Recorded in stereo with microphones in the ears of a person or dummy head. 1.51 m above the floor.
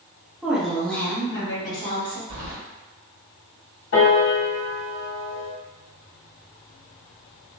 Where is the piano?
50° left (ahead or behind), 1.0 m.